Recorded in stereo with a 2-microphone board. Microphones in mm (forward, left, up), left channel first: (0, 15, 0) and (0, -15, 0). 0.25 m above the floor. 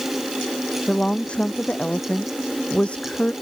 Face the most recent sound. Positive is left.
turn(degrees=40)  # may be behind; listen again after turning